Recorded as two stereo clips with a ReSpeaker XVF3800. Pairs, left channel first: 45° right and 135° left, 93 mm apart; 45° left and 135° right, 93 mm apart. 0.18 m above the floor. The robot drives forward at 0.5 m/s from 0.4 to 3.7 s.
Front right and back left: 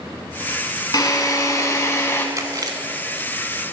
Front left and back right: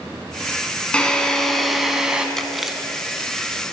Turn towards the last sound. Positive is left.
turn(degrees=155)